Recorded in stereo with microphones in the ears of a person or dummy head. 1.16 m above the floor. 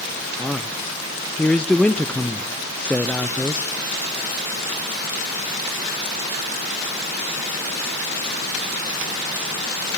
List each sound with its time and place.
0.4 s a man speaking: 10° left (ahead or behind), 0.6 m